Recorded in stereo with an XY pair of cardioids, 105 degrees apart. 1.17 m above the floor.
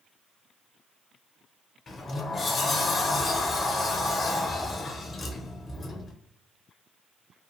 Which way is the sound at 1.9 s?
40° left.